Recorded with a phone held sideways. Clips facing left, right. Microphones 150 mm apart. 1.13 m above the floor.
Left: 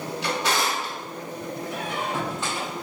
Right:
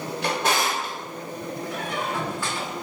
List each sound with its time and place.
0.2 s a drawer: 50° right (ahead or behind), 1.3 m
1.7 s a squeak: 20° left (ahead or behind), 1.2 m